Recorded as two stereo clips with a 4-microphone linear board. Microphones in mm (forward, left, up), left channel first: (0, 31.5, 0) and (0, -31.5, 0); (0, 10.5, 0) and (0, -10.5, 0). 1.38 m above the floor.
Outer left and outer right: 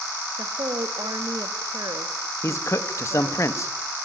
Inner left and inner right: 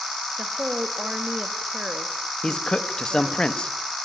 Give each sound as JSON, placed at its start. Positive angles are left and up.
{"t": 0.4, "sound": "a woman speaking", "side_deg": -85, "distance_m": 1.9}
{"t": 2.4, "sound": "a man speaking", "side_deg": 50, "distance_m": 1.5}